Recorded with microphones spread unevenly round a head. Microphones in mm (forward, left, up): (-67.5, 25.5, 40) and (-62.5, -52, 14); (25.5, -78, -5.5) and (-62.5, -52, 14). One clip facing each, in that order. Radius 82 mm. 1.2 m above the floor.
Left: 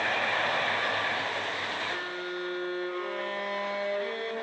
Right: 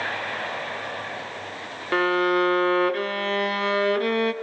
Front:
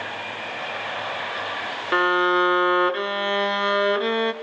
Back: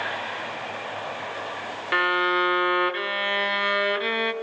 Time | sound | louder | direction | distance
1.9 | a violin | right 14 dB, front 4 dB | 80° right | 0.8 m